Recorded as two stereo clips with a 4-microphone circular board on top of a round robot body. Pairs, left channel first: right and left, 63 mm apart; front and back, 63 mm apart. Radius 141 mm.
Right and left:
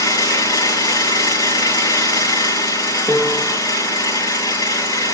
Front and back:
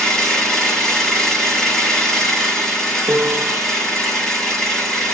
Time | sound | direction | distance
0.0 | an engine running | 85° right | 8 m
3.1 | a piano | 135° right | 2 m